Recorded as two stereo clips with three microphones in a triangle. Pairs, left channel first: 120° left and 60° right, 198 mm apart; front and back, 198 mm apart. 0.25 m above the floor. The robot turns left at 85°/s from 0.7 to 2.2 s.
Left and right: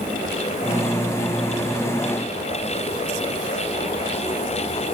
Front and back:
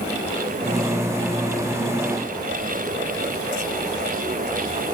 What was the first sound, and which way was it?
Only background noise.